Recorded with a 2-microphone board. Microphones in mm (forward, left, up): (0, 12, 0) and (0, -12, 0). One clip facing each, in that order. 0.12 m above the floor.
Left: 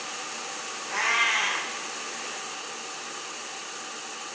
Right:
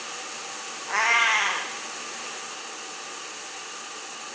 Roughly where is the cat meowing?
Right.